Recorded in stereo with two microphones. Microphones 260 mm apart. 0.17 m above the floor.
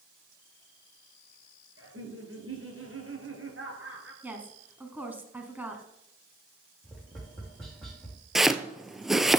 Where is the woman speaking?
5° right (ahead or behind), 1.6 m.